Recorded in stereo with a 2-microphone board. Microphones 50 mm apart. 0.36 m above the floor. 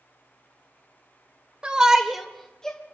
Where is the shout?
20° right (ahead or behind), 1.2 m; by 2.8 s 20° left (ahead or behind), 1.2 m.